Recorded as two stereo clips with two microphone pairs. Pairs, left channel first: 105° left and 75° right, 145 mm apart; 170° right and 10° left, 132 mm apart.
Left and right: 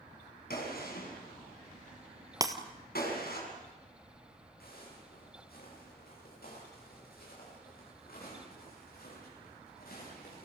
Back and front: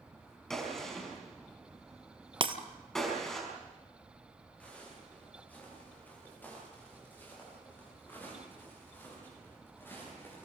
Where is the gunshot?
100° left, 6 m.